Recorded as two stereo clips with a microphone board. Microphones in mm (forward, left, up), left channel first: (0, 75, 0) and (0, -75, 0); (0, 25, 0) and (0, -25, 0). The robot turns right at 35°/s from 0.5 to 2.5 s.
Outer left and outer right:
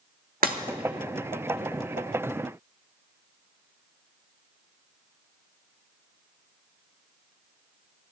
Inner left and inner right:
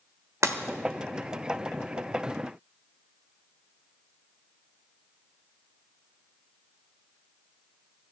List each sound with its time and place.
0.4 s breaking glass: 75° right (ahead or behind), 1.3 m